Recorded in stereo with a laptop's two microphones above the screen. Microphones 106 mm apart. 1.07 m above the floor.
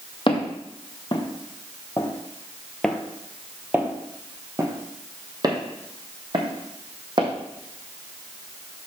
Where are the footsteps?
50° left (ahead or behind), 1.7 m; by 7.3 s 50° right (ahead or behind), 2.5 m.